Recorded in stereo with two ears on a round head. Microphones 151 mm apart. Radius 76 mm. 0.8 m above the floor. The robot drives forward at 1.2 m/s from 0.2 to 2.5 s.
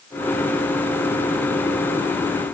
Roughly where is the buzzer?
I don't hear a buzzer.